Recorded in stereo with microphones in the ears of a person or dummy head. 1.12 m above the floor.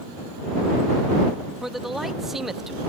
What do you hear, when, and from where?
1.6 s a man speaking: 5° right (ahead or behind)